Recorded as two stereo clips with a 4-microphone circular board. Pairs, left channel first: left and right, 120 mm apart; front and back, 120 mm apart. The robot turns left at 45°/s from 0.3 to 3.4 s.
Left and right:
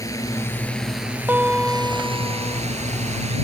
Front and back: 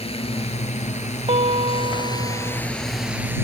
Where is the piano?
160° right; by 2.6 s 135° left.